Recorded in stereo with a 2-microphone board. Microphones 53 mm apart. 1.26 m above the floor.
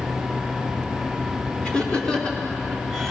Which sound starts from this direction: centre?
Laughter, at 1.6 s.